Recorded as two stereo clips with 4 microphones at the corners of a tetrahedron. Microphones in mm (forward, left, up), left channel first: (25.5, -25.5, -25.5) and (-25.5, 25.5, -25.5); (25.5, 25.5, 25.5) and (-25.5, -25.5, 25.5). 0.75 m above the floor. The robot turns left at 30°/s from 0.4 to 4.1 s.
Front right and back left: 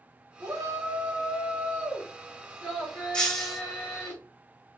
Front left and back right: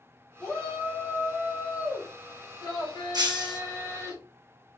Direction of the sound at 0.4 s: 120° left.